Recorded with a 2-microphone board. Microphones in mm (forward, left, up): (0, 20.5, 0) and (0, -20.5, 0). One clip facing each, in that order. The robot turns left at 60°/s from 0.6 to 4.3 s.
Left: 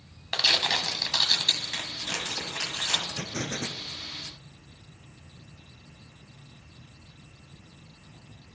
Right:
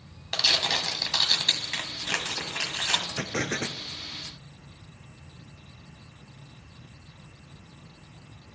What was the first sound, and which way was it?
Tearing paper, 20° left.